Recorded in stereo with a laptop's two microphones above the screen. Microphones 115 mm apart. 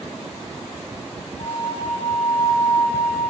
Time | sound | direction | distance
1.4 | a flute | 65° left (ahead or behind) | 7 m